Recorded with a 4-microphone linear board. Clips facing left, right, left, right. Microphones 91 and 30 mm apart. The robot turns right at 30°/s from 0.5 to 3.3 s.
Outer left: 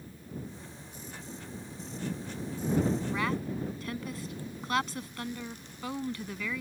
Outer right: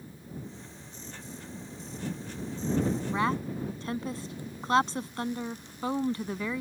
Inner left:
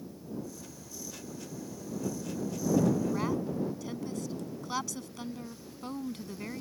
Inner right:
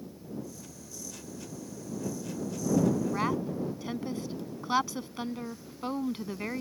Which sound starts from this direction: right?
A woman speaking, at 3.1 s.